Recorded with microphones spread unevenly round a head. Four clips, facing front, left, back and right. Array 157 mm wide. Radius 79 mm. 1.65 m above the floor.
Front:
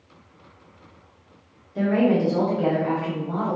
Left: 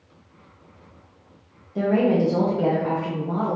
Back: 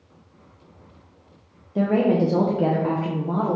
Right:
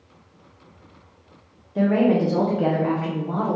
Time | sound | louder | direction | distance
1.8 | a woman speaking | right 1 dB, back 1 dB | 175° right | 0.6 m